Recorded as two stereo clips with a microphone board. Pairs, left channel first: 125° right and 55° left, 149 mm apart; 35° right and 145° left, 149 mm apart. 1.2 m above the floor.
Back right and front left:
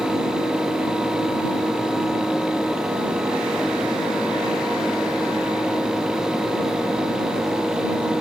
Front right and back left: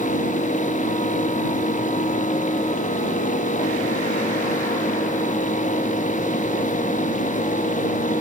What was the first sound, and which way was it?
Only background noise.